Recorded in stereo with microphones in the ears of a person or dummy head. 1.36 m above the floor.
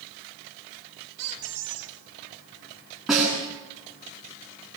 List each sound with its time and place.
1.2 s a squeak: 75° right (ahead or behind), 4 m
3.1 s a snare drum: centre (ahead or behind), 9.5 m